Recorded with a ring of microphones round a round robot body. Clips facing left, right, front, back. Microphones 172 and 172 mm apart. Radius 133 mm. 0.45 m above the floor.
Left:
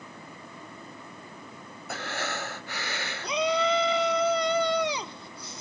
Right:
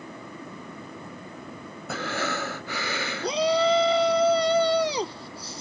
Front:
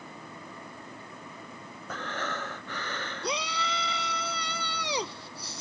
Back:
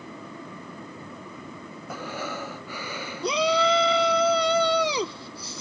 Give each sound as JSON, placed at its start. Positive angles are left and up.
{"t": 1.9, "sound": "breathing", "azimuth_deg": -95}
{"t": 3.2, "sound": "a shout", "azimuth_deg": -155}